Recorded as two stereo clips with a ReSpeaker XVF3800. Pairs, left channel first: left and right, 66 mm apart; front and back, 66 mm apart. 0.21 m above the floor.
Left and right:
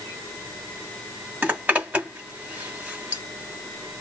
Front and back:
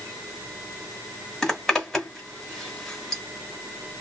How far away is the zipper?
About 1.4 m.